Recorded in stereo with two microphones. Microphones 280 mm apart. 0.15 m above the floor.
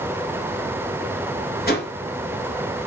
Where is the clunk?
No clunk in this recording.